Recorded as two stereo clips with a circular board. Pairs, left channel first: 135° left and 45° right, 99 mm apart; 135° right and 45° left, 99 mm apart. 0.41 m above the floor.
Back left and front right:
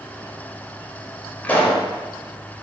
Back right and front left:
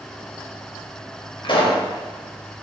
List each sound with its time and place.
1.4 s a pop: 155° right, 0.6 m